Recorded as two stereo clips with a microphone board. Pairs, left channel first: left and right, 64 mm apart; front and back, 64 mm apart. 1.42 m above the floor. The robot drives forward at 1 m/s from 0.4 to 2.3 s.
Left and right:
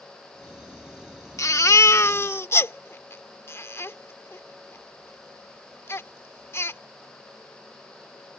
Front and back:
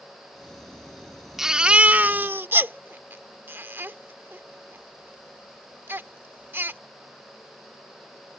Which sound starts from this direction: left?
A baby crying, at 1.4 s.